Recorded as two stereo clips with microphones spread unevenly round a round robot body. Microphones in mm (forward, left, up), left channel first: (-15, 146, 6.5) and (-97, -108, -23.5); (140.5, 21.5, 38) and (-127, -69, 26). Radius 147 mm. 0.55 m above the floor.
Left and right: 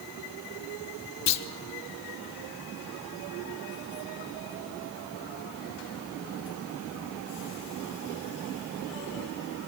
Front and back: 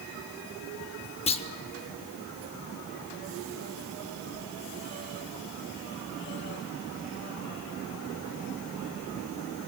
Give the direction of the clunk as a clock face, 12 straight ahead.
9 o'clock.